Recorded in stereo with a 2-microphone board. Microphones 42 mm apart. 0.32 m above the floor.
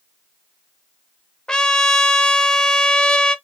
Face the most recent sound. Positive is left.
turn(degrees=20)  # may be behind; listen again after turning